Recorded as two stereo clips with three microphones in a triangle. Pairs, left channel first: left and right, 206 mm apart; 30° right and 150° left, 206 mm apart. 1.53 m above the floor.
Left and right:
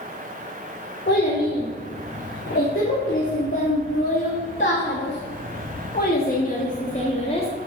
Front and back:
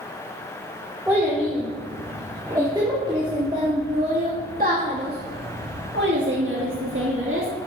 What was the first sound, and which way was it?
A child speaking, 65° left.